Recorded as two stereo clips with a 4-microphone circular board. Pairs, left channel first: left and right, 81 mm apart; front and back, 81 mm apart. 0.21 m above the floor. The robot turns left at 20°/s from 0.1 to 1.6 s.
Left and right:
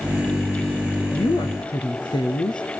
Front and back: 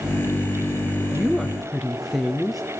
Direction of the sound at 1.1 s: 100° left.